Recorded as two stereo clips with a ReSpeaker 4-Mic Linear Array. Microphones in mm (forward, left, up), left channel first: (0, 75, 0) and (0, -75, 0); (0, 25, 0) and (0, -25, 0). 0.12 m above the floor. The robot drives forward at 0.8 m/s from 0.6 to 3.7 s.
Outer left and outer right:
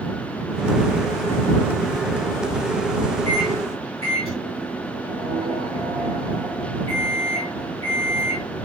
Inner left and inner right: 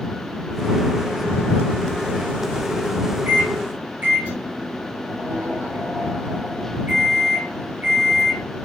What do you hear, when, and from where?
3.2 s a microwave: 45° right (ahead or behind), 8 m; by 8.5 s 40° right (ahead or behind), 8 m